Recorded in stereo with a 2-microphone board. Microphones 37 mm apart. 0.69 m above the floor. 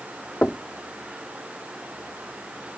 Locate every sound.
0.4 s knocking: 35° left (ahead or behind)